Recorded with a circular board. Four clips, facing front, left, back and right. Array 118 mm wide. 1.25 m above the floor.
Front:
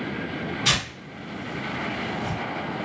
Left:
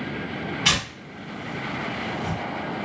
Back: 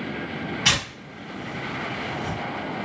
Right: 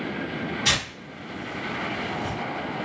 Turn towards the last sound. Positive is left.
turn(degrees=140)